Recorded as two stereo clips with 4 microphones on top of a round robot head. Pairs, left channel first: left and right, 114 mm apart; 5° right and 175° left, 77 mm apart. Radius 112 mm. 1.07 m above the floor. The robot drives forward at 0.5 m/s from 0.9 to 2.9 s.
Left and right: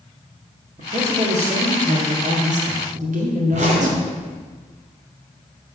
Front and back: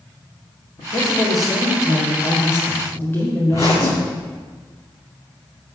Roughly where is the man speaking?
Ahead right.